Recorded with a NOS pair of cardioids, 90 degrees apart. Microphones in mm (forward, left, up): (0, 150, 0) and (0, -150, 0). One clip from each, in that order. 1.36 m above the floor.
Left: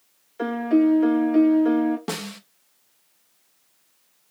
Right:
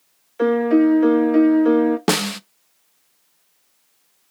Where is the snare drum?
50° right, 0.6 m.